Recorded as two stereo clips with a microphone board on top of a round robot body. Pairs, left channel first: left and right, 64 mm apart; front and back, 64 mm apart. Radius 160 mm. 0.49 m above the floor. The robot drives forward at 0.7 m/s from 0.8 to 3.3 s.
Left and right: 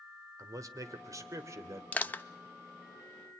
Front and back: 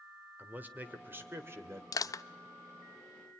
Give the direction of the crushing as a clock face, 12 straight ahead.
11 o'clock.